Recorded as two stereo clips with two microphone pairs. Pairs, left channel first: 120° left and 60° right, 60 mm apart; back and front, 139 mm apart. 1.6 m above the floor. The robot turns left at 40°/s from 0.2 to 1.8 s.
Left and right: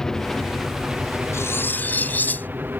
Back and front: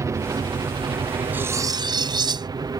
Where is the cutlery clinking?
80° left; by 2.5 s 60° left.